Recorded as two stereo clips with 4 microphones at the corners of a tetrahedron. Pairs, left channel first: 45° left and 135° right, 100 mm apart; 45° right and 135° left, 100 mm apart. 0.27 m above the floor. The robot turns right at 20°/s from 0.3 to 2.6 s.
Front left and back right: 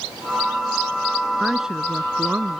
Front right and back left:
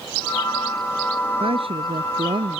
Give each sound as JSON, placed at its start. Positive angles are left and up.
{"t": 1.4, "sound": "a woman speaking", "azimuth_deg": 135}